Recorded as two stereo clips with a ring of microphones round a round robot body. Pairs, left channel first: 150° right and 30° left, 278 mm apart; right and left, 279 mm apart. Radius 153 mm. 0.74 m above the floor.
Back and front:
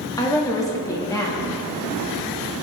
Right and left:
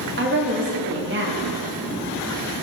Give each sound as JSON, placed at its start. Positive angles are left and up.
{"t": 0.2, "sound": "a woman speaking", "azimuth_deg": 135, "distance_m": 1.2}